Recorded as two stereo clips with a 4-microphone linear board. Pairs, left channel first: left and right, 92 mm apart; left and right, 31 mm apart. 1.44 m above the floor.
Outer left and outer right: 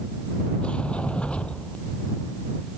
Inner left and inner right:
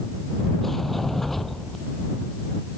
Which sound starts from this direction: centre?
A sliding door, at 0.6 s.